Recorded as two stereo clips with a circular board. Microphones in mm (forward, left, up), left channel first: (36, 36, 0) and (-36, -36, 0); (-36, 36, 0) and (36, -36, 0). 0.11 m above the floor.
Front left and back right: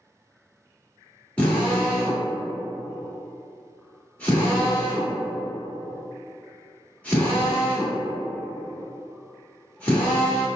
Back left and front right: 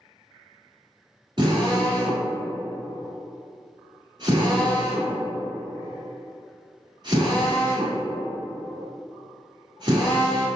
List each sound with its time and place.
1.4 s a drill: 30° right, 1.5 m